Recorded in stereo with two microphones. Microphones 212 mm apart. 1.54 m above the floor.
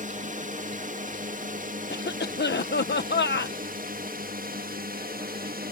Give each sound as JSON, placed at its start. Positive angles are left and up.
{"t": 0.0, "sound": "a drone", "side_deg": -40}
{"t": 1.9, "sound": "a cough", "side_deg": 55}